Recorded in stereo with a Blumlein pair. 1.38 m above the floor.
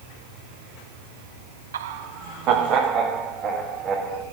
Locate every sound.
1.7 s laughter: 65° right, 0.5 m; by 4.2 s 20° right, 3 m